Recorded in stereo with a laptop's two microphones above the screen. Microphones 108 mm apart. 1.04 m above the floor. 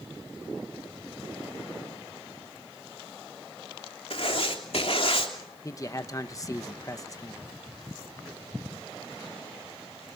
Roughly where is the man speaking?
Left.